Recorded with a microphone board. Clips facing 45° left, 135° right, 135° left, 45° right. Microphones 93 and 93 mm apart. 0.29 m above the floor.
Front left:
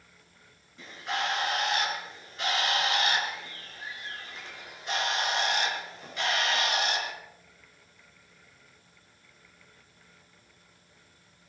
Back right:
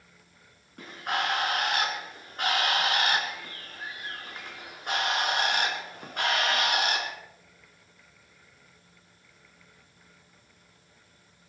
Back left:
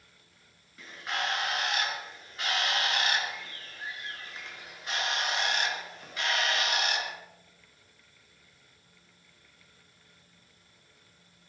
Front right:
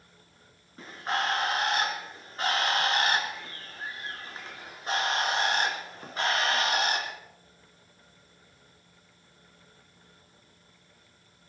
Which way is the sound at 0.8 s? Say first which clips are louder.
Back right 2 dB, front right 4 dB; 100° right.